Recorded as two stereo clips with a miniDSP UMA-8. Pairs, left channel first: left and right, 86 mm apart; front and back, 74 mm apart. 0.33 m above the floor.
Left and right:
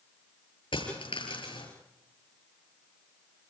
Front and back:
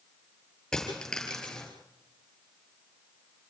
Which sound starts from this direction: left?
A dropped coin, at 0.7 s.